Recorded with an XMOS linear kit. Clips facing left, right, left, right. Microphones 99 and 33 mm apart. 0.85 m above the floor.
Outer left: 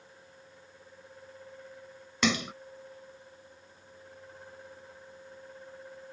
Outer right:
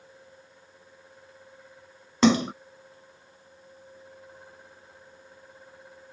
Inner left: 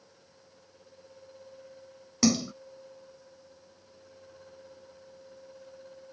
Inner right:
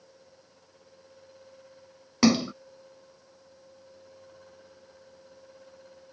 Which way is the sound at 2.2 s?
35° right (ahead or behind).